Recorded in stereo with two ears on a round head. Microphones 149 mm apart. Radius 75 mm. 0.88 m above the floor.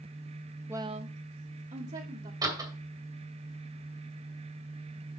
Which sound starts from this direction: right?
A door slam, at 2.4 s.